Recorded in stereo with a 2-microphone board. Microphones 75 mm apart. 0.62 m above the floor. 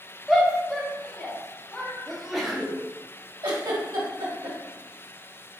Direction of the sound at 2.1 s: 5° right (ahead or behind).